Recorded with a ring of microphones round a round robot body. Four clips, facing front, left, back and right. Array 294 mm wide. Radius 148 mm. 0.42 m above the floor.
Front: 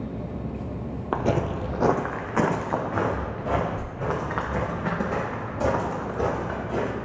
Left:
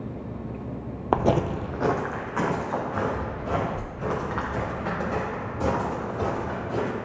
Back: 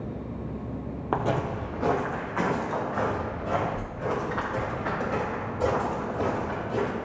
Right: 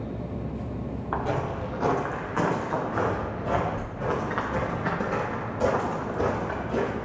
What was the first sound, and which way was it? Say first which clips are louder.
Footsteps: left 7 dB, front 2 dB; 85° left.